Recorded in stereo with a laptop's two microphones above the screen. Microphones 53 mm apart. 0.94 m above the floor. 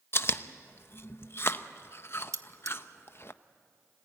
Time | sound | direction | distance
0.1 | chewing | 45° left (ahead or behind) | 0.7 m
2.3 | cutlery clinking | 70° right (ahead or behind) | 1.0 m